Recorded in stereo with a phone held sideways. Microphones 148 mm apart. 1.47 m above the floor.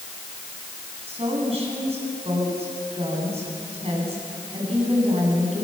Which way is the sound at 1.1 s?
45° right (ahead or behind).